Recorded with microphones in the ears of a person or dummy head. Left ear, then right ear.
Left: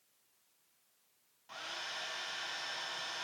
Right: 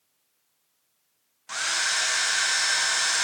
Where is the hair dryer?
60° right (ahead or behind).